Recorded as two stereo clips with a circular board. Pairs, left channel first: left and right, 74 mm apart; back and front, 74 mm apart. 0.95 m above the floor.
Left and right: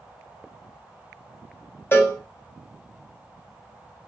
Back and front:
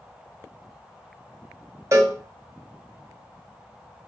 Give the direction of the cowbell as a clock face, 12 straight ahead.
11 o'clock.